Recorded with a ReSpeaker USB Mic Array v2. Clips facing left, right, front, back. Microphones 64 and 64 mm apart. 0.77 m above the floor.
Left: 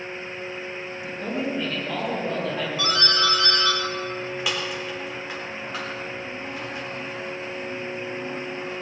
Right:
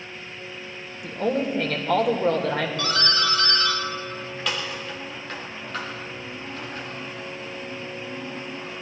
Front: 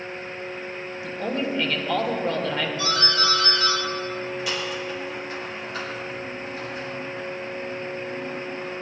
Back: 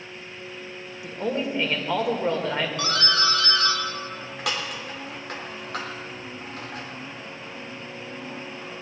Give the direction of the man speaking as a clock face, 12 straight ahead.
4 o'clock.